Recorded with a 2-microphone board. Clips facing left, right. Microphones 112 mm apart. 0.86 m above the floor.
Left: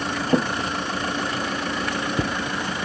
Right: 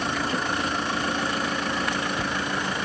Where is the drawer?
35° left (ahead or behind).